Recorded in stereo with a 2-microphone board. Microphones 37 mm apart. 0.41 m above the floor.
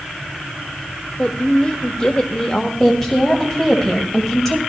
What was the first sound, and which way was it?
A woman speaking, 30° left (ahead or behind).